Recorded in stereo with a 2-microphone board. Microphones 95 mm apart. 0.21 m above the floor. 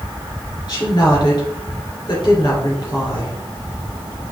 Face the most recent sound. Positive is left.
turn(degrees=45)  # may be behind; listen again after turning